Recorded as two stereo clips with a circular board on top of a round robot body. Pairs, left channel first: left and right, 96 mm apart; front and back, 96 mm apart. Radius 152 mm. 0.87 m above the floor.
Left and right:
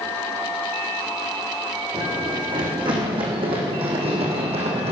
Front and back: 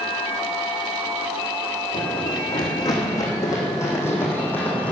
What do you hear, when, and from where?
1.9 s running footsteps: 45° right, 3.5 m; by 4.9 s 75° right, 3 m